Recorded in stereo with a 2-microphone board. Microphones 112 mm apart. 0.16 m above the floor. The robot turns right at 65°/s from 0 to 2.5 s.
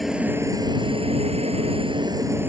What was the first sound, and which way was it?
A helicopter, straight behind.